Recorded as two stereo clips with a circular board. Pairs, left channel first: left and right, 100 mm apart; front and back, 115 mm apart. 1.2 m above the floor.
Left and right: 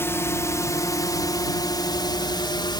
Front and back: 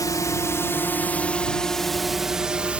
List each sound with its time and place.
0.0 s a drone: 40° left; by 2.8 s 105° left